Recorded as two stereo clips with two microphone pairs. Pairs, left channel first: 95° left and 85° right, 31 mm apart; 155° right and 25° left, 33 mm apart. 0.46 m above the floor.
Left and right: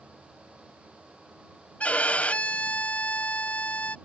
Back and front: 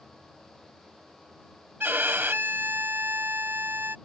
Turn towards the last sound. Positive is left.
turn(degrees=45)